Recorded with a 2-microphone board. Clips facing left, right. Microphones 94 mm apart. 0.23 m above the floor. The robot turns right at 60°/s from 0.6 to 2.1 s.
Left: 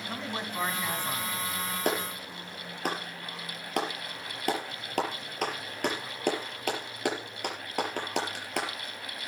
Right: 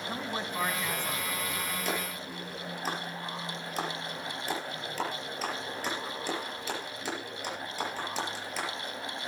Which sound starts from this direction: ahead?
A man speaking, at 0.1 s.